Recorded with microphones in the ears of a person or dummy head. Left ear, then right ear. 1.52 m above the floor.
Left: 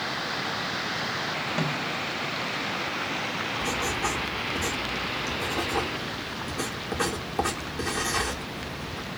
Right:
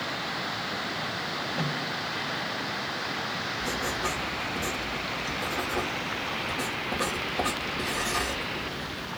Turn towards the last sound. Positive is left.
turn(degrees=55)  # may be behind; listen again after turning